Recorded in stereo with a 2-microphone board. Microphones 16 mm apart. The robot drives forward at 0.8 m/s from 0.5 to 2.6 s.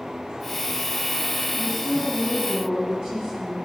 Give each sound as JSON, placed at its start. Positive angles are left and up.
{"t": 1.5, "sound": "a woman speaking", "side_deg": -75, "distance_m": 8.0}